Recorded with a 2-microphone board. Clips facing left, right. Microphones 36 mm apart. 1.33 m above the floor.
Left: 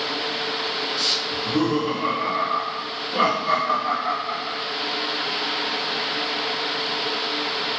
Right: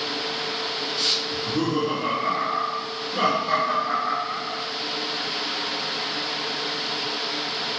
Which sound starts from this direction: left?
Laughter, at 1.3 s.